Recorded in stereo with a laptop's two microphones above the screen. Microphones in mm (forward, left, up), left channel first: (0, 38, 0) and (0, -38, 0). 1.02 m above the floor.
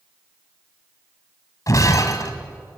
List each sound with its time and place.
1.7 s breaking glass: 50° left (ahead or behind), 2 m